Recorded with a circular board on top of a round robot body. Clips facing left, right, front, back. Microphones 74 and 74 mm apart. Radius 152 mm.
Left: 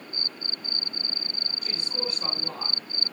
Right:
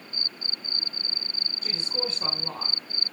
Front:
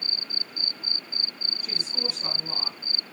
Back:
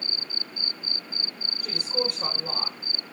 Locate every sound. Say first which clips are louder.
1.6 s a woman speaking: right 2 dB, back 7 dB; 145° right, 4.5 m; by 2.9 s 155° right, 4.5 m